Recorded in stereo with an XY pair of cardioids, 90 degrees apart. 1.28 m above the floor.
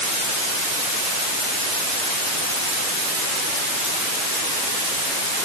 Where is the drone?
I don't hear a drone.